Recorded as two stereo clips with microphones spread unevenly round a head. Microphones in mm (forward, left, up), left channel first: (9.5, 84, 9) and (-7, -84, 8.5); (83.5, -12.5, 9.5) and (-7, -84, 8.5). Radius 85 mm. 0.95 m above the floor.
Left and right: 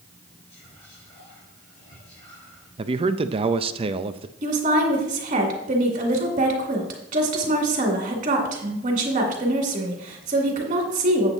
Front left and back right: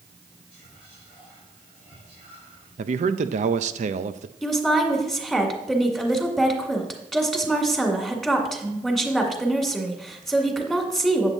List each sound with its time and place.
0.5 s whispering: 135° left, 3 m
2.8 s a man speaking: 150° right, 0.5 m
4.4 s a woman speaking: 50° right, 2 m